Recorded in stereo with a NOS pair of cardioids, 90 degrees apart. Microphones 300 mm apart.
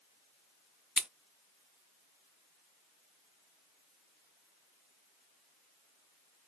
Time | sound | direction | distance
1.0 | scissors | straight ahead | 0.8 m